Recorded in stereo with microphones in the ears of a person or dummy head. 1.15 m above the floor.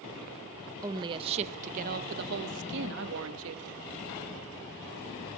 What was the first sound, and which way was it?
A woman speaking, 20° right (ahead or behind).